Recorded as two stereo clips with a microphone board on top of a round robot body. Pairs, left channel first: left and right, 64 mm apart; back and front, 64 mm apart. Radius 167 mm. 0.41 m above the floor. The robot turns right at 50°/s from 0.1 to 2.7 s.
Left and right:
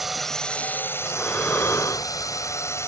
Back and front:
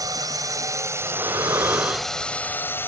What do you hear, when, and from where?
0.0 s a drone: straight ahead; by 2.9 s 130° left
1.0 s breathing: 5° left; by 2.6 s 85° left